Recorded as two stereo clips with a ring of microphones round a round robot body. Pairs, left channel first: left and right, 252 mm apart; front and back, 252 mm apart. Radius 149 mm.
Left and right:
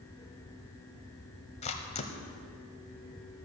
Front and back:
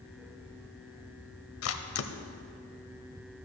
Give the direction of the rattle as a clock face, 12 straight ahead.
I don't hear a rattle.